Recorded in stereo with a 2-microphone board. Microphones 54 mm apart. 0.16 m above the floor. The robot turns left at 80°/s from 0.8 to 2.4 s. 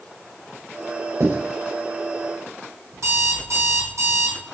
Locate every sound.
1.2 s writing: 65° right (ahead or behind), 6.5 m; by 1.4 s 55° right (ahead or behind), 6.5 m
2.9 s an alarm clock: 70° right (ahead or behind), 4 m